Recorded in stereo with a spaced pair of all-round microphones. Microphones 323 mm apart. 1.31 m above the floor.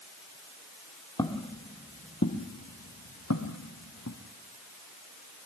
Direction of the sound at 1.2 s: 15° left (ahead or behind).